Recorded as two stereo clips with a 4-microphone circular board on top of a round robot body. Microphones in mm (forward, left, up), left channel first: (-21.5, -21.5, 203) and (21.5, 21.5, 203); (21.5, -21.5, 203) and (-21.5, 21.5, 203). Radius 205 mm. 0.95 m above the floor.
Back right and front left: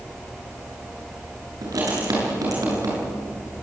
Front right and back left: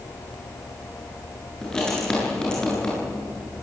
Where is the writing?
35° left, 8.5 m.